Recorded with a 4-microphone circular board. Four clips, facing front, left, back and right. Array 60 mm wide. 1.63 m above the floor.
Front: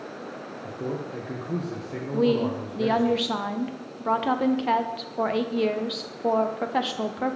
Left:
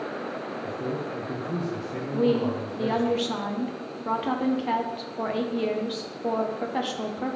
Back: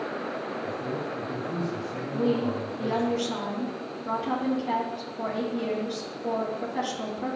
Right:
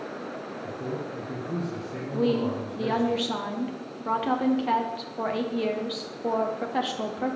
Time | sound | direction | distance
0.6 | a man speaking | 10° left | 1.0 m
2.1 | a woman speaking | 5° right | 0.6 m